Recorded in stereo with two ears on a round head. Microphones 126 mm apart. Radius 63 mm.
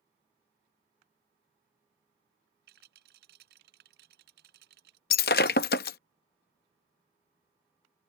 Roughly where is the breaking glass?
Left.